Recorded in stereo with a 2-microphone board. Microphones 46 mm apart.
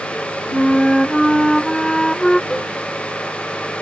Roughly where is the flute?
Centre.